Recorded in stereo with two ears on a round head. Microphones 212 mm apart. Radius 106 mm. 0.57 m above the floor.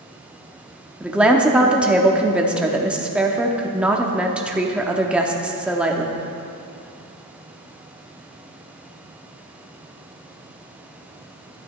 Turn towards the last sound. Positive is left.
turn(degrees=-5)  # may be behind; listen again after turning